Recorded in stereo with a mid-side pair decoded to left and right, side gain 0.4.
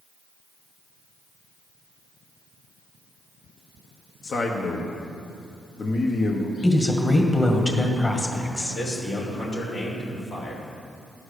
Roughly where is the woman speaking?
Ahead.